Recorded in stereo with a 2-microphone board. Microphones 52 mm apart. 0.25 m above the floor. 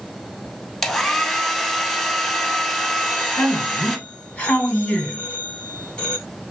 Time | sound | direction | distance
0.8 | a hair dryer | centre (ahead or behind) | 0.7 m
3.0 | a man speaking | 25° left (ahead or behind) | 1.7 m